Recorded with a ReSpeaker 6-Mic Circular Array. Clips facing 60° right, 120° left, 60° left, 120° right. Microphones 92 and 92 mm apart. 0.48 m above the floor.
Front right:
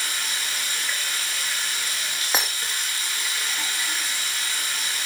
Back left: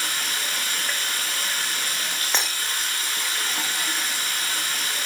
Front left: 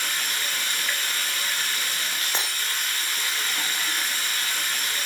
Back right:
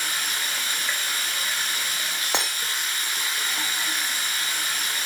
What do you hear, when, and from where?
0.0 s running water: 165° left, 4.5 m
2.3 s breaking glass: 145° right, 3.5 m